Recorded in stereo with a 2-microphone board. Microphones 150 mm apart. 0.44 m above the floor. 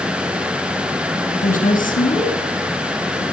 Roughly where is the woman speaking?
Left.